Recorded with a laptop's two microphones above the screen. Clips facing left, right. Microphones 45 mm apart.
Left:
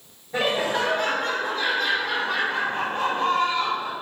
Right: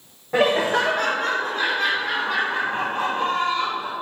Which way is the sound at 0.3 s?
50° right (ahead or behind).